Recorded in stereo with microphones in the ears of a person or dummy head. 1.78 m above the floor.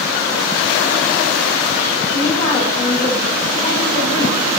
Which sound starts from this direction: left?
A woman speaking, at 2.1 s.